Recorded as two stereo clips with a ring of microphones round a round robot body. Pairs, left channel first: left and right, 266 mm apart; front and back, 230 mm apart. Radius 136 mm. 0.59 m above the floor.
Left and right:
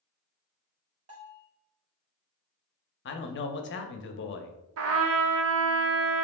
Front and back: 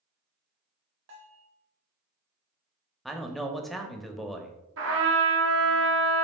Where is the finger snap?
No finger snap in this recording.